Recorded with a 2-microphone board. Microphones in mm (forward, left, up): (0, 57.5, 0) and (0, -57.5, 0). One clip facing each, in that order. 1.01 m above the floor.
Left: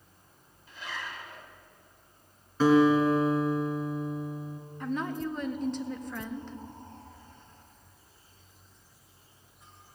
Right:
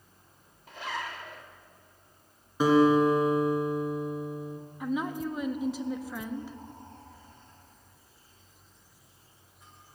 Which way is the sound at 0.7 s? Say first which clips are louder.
Right 4 dB; 65° right (ahead or behind).